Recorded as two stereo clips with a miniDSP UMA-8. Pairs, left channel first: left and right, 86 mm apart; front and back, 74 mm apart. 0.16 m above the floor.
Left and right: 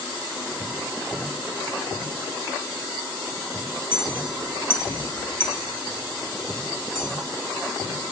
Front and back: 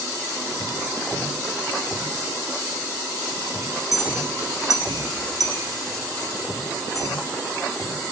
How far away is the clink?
About 1.5 m.